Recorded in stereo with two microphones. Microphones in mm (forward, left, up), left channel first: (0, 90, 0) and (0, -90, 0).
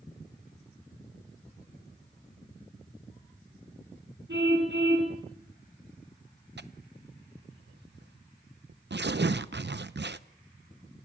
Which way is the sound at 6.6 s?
75° right (ahead or behind).